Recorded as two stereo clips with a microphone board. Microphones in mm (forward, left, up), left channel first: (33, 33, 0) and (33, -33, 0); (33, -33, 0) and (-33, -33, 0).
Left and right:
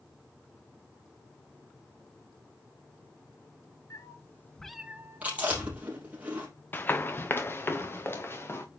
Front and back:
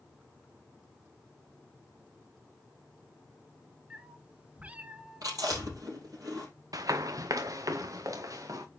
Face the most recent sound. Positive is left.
turn(degrees=145)